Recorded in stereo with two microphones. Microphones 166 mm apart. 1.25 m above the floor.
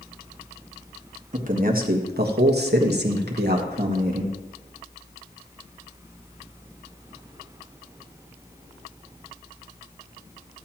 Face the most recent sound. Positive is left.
turn(degrees=-65)  # may be behind; listen again after turning